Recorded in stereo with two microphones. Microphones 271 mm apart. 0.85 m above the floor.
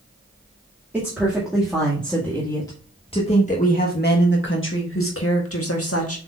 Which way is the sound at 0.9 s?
5° right (ahead or behind).